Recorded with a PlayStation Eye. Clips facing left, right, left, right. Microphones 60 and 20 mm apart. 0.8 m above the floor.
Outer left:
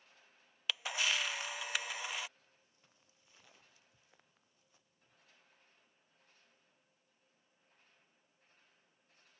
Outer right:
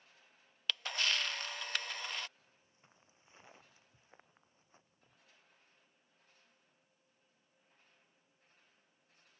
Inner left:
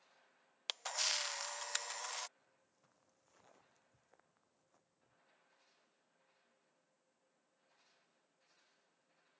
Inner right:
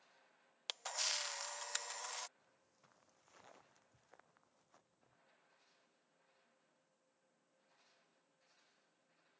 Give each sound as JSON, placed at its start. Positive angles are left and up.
{"t": 0.7, "sound": "a camera shutter", "side_deg": 10}
{"t": 2.4, "sound": "footsteps", "side_deg": -25}